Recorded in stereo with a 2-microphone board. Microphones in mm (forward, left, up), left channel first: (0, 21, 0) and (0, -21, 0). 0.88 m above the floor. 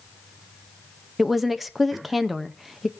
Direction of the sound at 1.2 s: 5° right (ahead or behind).